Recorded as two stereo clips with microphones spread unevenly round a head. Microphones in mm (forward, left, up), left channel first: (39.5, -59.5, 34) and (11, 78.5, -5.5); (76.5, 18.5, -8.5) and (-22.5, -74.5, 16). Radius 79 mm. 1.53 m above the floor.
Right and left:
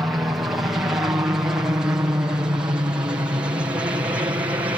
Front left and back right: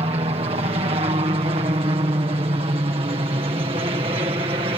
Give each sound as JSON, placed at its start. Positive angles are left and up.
{"t": 0.0, "sound": "a helicopter", "azimuth_deg": 175}